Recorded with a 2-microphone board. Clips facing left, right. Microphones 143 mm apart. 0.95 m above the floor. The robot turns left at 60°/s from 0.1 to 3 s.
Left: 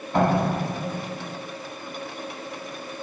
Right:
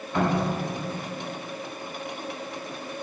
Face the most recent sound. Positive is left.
turn(degrees=-35)